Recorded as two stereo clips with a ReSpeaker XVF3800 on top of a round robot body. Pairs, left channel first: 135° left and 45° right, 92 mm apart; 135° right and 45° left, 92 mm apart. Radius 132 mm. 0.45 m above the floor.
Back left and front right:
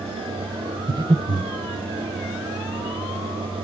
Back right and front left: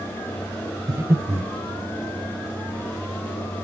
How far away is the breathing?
About 1.6 m.